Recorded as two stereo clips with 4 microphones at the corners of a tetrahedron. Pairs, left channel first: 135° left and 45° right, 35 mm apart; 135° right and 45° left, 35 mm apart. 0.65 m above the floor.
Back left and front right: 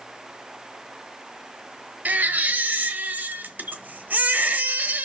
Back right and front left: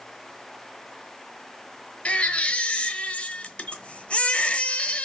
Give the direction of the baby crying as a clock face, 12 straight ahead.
3 o'clock.